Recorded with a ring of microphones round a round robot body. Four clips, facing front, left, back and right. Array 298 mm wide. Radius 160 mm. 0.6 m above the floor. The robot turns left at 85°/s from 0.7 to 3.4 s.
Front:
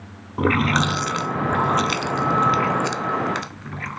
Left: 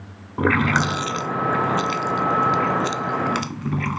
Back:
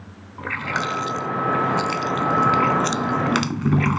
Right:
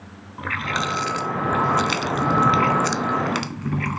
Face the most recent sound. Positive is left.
turn(degrees=180)